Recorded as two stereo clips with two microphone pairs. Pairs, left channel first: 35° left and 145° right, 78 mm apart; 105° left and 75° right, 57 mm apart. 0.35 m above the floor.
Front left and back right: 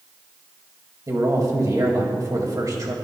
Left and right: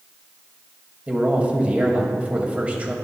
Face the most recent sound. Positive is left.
turn(degrees=-130)